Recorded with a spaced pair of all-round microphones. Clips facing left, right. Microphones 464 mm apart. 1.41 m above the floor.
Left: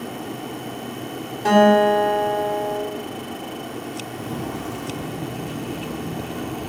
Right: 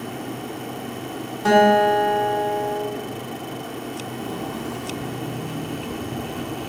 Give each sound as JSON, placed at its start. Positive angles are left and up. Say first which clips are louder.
{"t": 1.4, "sound": "a guitar", "louder": "left 1 dB", "side_deg": -25, "distance_m": 3.5}
{"t": 4.1, "sound": "footsteps", "louder": "left 1 dB", "side_deg": 50, "distance_m": 2.0}